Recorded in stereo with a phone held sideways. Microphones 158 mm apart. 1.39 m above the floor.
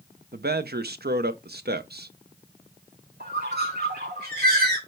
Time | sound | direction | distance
0.3 | a man speaking | 80° right | 0.7 m
3.2 | a bird | 75° right (ahead or behind) | 3 m